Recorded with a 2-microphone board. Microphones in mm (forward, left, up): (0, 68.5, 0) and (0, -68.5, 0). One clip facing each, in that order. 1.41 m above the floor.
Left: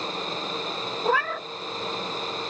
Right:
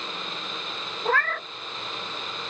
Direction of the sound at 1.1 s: 10° left (ahead or behind).